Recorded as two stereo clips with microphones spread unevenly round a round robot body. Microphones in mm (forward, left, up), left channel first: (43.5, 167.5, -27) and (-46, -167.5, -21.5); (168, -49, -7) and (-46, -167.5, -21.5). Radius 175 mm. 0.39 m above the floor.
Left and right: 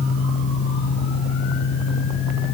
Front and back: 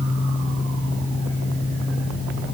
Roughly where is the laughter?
I don't hear laughter.